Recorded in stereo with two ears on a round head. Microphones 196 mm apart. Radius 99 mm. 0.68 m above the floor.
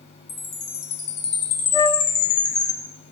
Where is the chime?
45° left (ahead or behind), 3 m.